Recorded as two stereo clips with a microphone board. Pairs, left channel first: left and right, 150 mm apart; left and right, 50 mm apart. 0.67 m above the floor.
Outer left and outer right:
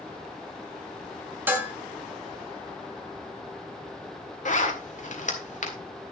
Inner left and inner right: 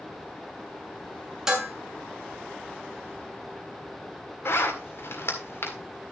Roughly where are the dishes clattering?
Centre.